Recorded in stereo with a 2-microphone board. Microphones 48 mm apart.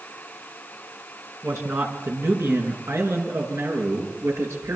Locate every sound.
1.4 s a man speaking: 70° right (ahead or behind), 4.5 m; by 4.8 s 75° right (ahead or behind), 8 m